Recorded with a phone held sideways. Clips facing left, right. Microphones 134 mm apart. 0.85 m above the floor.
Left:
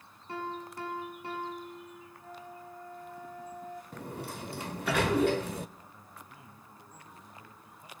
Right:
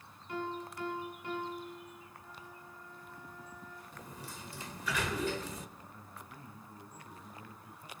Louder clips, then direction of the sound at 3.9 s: Left 8 dB; 65° left (ahead or behind).